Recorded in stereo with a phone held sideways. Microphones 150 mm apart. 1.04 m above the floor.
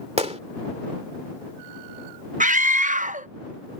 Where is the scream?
55° right (ahead or behind).